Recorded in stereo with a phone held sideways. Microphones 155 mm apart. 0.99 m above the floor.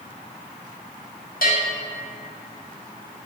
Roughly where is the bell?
Left.